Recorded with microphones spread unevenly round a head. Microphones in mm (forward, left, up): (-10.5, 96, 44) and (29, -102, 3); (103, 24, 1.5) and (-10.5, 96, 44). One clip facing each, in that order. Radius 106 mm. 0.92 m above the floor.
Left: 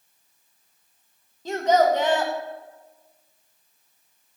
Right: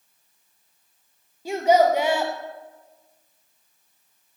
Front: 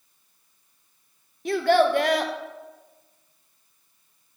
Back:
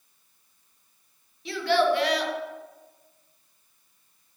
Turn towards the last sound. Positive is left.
turn(degrees=0)